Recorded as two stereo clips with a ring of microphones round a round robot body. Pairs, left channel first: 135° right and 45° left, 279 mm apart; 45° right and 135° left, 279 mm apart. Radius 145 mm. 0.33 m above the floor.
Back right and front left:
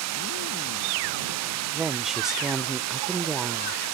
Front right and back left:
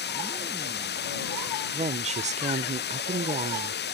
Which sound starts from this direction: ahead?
Running water, at 0.0 s.